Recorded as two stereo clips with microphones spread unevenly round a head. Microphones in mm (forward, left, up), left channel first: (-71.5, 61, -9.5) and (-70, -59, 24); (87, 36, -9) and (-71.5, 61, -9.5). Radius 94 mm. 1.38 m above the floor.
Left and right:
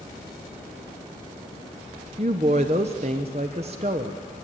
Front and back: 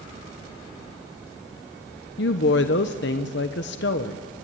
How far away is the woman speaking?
About 1.0 m.